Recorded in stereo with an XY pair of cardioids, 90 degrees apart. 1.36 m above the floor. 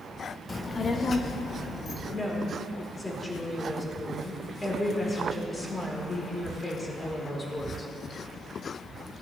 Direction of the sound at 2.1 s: 25° left.